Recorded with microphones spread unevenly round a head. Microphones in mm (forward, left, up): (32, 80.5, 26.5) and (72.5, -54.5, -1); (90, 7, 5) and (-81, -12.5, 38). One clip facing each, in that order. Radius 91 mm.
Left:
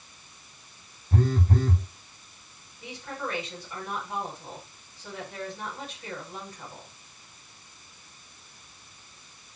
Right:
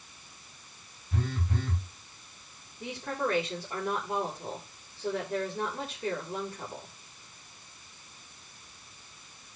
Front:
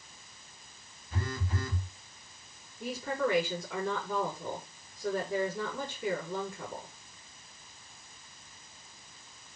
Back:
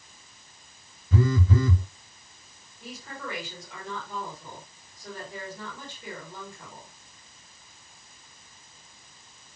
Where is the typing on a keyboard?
No typing on a keyboard in this recording.